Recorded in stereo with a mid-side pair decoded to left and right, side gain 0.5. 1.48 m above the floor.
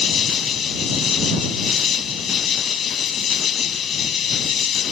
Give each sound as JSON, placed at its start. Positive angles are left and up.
{"t": 0.0, "sound": "an insect", "azimuth_deg": 50}